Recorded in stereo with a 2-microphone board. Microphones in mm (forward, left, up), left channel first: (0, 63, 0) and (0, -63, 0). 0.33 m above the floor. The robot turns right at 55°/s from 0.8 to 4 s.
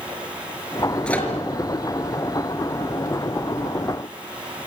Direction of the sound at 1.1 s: 5° left (ahead or behind).